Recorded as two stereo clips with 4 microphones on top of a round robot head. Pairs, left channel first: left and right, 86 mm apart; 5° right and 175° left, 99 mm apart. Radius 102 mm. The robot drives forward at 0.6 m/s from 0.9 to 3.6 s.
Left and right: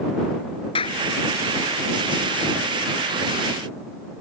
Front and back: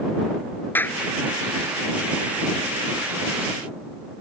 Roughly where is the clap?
Ahead left.